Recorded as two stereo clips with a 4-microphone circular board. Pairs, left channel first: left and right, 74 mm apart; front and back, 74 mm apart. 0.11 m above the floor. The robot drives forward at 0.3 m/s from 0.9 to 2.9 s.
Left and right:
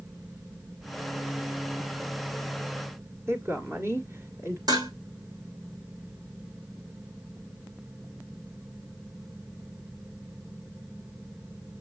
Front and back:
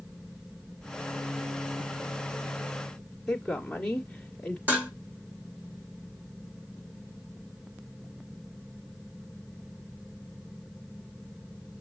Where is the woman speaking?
90° right, 1.4 m.